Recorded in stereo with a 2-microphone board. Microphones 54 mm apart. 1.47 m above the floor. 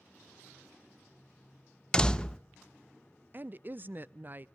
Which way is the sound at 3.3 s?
35° right (ahead or behind).